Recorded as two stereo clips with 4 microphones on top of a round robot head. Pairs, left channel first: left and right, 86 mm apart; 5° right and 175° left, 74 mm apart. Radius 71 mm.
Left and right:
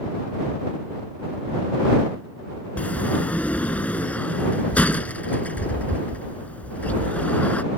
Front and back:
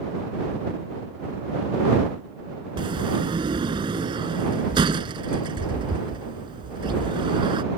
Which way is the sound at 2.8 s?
165° left.